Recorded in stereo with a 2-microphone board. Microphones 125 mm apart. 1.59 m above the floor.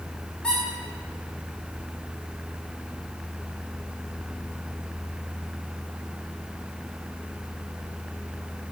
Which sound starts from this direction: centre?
A squeak, at 0.4 s.